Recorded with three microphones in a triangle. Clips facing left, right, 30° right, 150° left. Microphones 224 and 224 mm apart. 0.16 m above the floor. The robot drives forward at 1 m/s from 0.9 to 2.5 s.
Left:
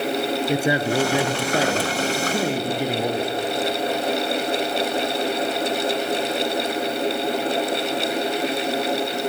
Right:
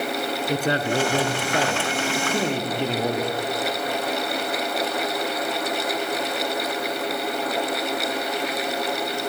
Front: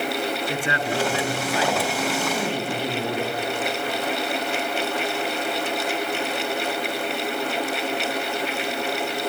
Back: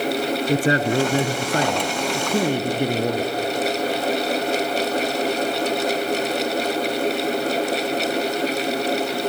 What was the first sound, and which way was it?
A man speaking, 165° left.